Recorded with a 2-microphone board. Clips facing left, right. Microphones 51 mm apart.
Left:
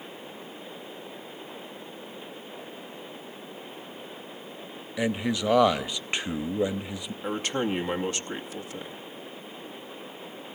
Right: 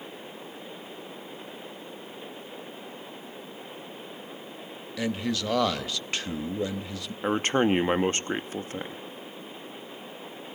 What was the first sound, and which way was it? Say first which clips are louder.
A man speaking: left 2 dB; 20° left (ahead or behind).